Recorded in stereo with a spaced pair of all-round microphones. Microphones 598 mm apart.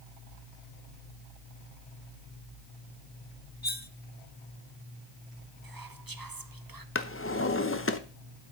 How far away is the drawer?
About 0.8 m.